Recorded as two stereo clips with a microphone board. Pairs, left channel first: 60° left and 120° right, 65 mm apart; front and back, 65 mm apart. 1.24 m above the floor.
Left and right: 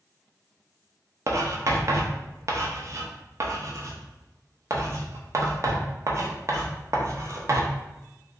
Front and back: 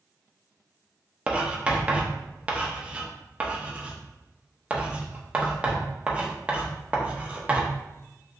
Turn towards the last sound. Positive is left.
turn(degrees=-115)